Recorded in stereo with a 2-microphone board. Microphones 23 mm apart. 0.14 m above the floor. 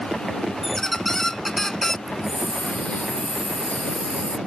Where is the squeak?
20° left (ahead or behind).